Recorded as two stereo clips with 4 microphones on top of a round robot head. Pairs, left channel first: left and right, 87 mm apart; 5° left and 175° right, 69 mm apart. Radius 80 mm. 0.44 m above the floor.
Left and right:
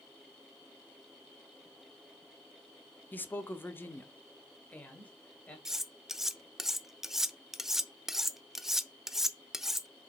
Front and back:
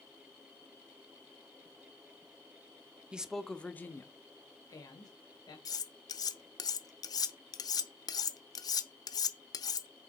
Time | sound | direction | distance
3.1 | a man speaking | 130° left | 1.2 m
5.7 | cutlery clinking | 5° right | 0.9 m